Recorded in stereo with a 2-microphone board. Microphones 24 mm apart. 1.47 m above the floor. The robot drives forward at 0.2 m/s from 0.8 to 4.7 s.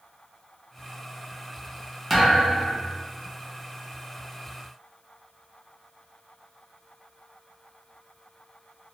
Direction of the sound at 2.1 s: 5° right (ahead or behind).